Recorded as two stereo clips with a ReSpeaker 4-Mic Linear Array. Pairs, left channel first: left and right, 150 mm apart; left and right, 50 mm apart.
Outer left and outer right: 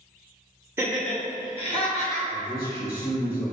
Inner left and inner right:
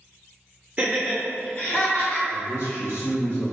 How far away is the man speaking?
About 1.7 m.